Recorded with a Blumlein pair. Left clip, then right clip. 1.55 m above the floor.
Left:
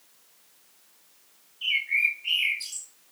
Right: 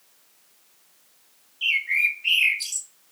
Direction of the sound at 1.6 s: 70° right.